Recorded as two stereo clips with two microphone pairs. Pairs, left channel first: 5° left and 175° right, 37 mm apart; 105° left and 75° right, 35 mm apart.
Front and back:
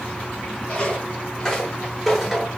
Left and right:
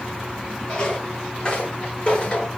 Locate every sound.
0.7 s footsteps: 55° left, 2 m; by 2.5 s 110° left, 1.6 m